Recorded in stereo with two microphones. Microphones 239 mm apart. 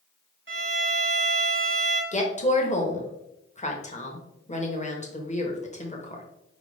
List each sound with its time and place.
0.5 s a violin: 55° right (ahead or behind), 1.4 m
2.1 s a woman speaking: 30° left (ahead or behind), 1.0 m